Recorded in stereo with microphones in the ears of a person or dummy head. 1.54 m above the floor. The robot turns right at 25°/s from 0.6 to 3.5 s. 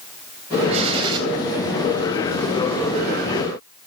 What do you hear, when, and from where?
0.7 s a gunshot: 40° right (ahead or behind), 3.5 m; by 1.2 s 25° right (ahead or behind), 3.5 m